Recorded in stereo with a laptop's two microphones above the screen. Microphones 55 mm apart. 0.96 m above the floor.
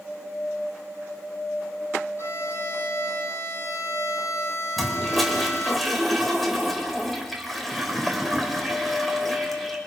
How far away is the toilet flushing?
About 2 m.